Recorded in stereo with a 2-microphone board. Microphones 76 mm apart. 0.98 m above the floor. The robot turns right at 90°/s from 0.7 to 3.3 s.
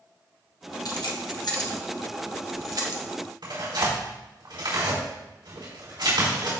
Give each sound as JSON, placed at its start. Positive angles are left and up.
{"t": 0.8, "sound": "keys jangling", "side_deg": 60, "distance_m": 1.0}
{"t": 3.4, "sound": "tearing paper", "side_deg": -85, "distance_m": 3.5}